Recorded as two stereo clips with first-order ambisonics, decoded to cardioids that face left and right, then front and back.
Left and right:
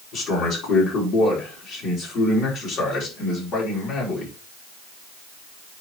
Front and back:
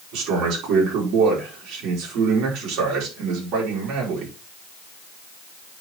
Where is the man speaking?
145° left, 5 m.